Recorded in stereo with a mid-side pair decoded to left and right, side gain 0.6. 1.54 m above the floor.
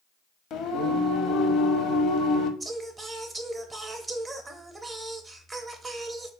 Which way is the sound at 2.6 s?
20° right.